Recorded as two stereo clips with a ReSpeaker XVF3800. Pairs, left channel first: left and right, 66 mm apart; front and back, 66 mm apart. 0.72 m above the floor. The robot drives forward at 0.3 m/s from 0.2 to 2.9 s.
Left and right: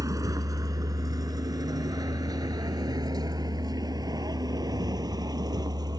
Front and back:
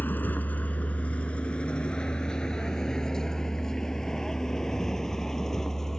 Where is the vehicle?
60° right; by 6.0 s 80° right.